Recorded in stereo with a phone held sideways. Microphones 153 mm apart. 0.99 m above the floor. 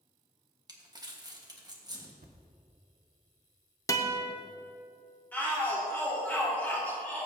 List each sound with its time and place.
0.7 s crumpling: 25° right (ahead or behind), 1.5 m
2.2 s a thud: 65° right (ahead or behind), 1.1 m
3.9 s a guitar: 20° left (ahead or behind), 0.8 m
5.3 s a shout: 15° left (ahead or behind), 2 m